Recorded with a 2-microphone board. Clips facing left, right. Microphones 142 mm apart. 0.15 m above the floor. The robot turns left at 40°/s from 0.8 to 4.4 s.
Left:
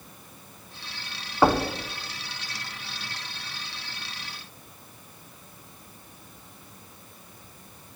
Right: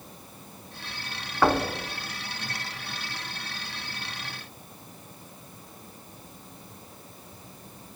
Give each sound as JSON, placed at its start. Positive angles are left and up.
{"t": 1.4, "sound": "knocking", "side_deg": 20, "distance_m": 0.7}